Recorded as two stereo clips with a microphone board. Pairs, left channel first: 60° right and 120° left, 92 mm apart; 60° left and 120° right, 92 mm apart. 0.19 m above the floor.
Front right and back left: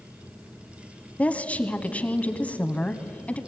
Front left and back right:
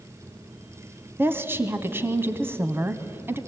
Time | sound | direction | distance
1.2 | a woman speaking | 110° right | 1.1 m